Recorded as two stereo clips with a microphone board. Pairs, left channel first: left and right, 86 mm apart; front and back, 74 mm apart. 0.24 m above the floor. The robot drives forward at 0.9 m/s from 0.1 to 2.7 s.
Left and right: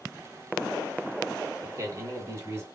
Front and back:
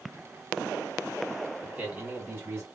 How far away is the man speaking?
About 1.9 m.